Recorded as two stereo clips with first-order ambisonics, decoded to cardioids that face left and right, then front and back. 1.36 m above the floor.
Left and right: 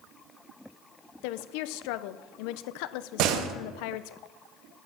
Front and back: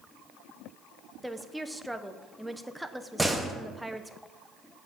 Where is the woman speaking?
90° left, 0.7 m.